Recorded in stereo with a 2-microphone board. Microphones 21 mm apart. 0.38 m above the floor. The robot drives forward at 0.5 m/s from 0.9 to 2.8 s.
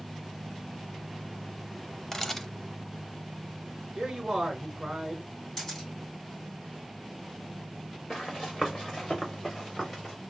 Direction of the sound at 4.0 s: 45° right (ahead or behind).